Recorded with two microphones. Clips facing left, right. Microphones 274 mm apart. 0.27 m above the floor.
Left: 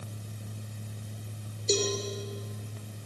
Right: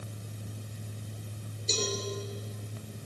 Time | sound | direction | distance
1.7 | a cowbell | 65° left (ahead or behind) | 6 m